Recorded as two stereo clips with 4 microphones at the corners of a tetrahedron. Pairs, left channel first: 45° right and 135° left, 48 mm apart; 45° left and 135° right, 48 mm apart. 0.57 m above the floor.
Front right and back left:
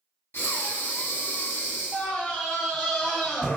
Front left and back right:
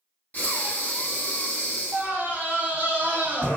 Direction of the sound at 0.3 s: 5° right.